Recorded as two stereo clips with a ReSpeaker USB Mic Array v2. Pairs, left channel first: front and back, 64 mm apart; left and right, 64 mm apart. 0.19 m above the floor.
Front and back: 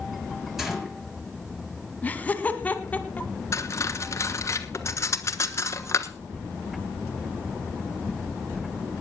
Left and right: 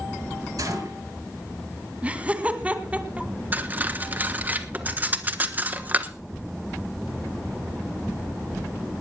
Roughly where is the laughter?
Ahead right.